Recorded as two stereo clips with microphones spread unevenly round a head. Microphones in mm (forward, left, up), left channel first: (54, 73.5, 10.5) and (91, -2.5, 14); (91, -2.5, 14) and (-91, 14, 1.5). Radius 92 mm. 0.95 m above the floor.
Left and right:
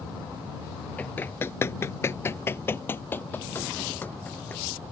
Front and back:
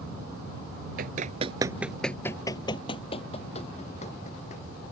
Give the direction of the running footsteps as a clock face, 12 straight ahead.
6 o'clock.